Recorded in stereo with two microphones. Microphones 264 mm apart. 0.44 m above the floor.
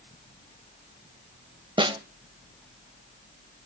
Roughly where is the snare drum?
Centre.